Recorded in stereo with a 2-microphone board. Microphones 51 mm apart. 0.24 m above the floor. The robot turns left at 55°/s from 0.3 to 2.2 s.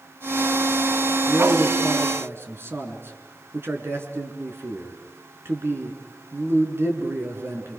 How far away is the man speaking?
About 3.5 m.